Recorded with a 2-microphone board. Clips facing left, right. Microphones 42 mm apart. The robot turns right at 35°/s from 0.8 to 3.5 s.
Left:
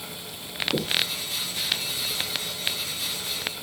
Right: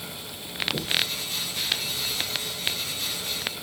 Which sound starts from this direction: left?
Knocking, at 0.7 s.